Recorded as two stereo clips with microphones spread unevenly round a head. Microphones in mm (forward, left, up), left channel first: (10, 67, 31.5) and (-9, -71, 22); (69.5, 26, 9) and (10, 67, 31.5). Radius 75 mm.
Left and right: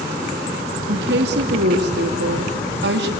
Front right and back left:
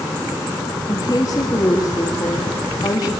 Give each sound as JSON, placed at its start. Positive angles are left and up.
{"t": 0.9, "sound": "a woman speaking", "azimuth_deg": -100, "distance_m": 2.5}